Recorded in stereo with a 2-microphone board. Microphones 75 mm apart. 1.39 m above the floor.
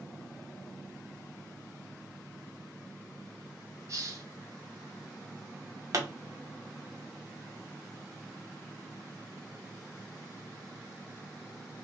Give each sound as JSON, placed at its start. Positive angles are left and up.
{"t": 3.9, "sound": "a hiss", "side_deg": -40, "distance_m": 2.5}
{"t": 5.9, "sound": "a pop", "side_deg": -45, "distance_m": 0.9}